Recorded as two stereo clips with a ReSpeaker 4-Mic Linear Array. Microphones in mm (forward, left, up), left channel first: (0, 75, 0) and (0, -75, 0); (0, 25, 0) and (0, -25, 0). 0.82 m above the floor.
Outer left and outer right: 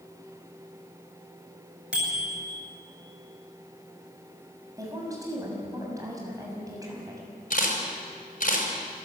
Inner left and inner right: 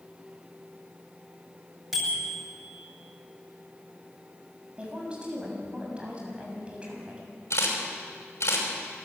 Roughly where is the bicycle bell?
Centre.